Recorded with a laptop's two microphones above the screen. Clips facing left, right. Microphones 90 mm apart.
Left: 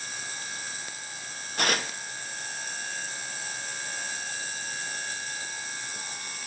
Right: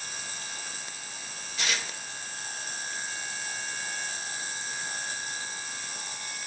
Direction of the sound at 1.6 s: 55° left (ahead or behind).